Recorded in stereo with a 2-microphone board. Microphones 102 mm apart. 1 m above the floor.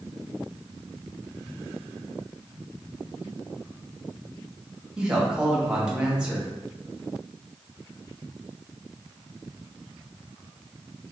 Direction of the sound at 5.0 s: 10° right (ahead or behind).